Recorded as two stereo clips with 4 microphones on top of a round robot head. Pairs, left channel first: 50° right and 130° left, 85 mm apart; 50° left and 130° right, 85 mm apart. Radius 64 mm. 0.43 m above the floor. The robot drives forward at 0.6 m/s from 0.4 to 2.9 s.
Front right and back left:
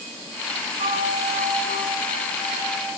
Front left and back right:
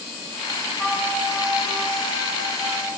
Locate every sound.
0.8 s a flute: 145° left, 6 m; by 2.9 s 150° left, 7 m